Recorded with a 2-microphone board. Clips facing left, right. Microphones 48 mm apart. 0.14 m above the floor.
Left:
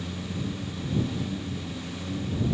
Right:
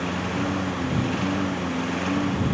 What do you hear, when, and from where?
0.0 s a lawn mower: 85° right